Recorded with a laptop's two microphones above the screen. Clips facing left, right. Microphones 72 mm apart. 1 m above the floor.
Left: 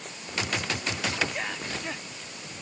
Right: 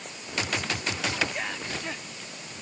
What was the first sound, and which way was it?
Only background noise.